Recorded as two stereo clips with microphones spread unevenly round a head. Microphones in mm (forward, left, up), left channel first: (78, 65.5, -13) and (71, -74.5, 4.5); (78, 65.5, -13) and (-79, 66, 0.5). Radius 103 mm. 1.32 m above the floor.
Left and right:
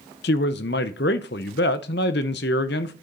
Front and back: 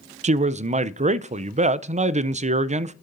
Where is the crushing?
No crushing in this recording.